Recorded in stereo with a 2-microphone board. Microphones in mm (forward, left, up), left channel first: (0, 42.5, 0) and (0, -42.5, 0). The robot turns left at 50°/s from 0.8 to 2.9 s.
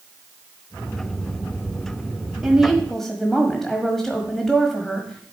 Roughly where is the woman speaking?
Centre.